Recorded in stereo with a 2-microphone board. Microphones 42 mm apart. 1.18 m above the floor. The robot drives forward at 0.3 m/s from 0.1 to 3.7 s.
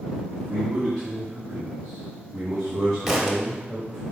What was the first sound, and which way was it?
A man speaking, 20° right (ahead or behind).